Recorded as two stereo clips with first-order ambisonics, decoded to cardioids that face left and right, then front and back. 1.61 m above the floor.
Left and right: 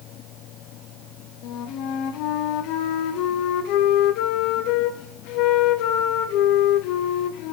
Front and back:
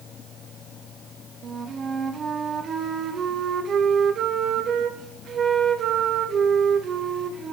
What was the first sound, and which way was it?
A flute, 120° left.